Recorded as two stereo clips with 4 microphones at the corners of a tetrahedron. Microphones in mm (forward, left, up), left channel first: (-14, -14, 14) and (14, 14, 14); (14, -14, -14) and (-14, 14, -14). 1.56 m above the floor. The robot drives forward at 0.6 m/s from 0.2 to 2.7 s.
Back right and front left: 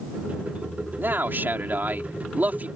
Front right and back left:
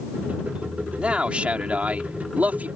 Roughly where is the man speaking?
Left.